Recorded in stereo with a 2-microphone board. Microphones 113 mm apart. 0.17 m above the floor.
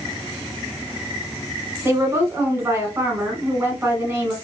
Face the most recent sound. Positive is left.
turn(degrees=-25)  # may be behind; listen again after turning